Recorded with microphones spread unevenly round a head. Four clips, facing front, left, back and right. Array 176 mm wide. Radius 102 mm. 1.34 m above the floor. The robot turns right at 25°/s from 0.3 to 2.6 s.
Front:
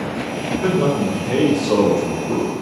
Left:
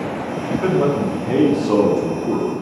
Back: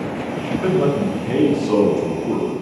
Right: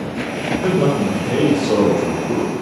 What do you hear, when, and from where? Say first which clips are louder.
0.5 s a man speaking: even, even; 85° left, 2.5 m; by 2.5 s 135° left, 2.5 m